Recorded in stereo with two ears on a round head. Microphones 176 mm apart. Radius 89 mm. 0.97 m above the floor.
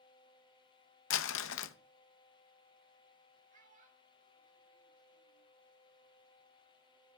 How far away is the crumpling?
About 0.7 m.